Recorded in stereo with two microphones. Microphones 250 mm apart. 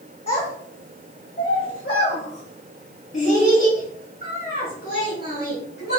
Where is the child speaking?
25° left (ahead or behind), 2 m; by 6.0 s 60° left (ahead or behind), 4.5 m.